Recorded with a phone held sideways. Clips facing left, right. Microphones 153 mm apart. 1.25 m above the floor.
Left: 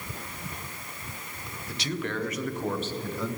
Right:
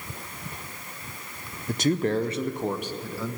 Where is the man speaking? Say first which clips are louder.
Right 9 dB; 50° right (ahead or behind), 0.7 m; by 3.4 s 5° right (ahead or behind), 1.1 m.